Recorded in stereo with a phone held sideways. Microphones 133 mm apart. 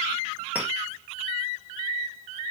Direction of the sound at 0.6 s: 10° right (ahead or behind).